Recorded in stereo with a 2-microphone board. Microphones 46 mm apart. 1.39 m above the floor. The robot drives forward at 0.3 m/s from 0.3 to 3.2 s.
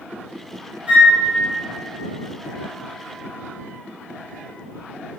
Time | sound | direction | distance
0.9 | a flute | 25° right (ahead or behind) | 0.9 m